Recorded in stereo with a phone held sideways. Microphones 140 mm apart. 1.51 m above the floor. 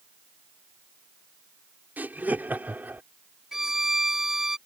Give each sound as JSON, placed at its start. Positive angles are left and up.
{"t": 2.0, "sound": "laughter", "side_deg": -10}
{"t": 3.5, "sound": "a violin", "side_deg": -5}